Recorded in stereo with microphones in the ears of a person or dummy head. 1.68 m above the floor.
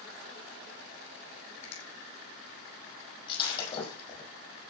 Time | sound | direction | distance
1.6 | a finger snap | 80° left | 5.5 m
3.3 | breaking glass | 25° left (ahead or behind) | 6.5 m